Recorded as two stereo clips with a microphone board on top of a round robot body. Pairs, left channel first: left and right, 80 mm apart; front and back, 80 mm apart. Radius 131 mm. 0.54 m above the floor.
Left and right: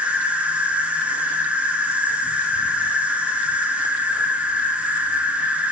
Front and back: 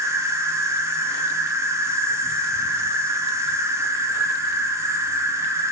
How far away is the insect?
About 1.7 m.